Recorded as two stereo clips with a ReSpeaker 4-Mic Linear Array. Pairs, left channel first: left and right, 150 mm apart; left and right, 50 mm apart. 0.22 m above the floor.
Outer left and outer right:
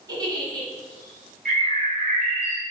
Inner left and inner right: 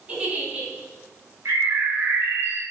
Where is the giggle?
25° right (ahead or behind), 1.7 m.